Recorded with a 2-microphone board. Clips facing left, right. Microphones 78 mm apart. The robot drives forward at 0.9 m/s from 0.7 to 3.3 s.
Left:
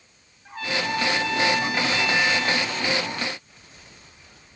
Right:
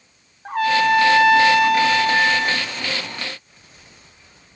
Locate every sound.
0.5 s a trumpet: 65° right (ahead or behind), 1.1 m; by 2.7 s 40° right (ahead or behind), 1.6 m